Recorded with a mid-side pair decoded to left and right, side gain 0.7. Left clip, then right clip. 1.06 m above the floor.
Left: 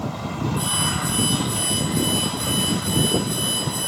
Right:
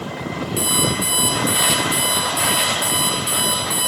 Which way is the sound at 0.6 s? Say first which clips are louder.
Right 4 dB; 50° right.